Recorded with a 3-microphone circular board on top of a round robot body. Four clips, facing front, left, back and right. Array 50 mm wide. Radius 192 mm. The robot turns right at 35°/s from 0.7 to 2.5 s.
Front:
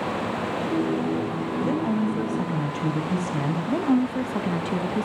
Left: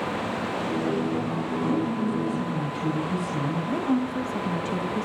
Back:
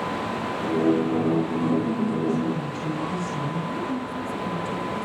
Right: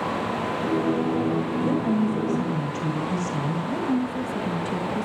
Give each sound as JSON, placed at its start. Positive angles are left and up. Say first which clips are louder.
{"t": 1.6, "sound": "a woman speaking", "louder": "right 2 dB, even", "azimuth_deg": -40, "distance_m": 6.0}
{"t": 3.7, "sound": "a woman speaking", "louder": "even, front 6 dB", "azimuth_deg": 10, "distance_m": 1.7}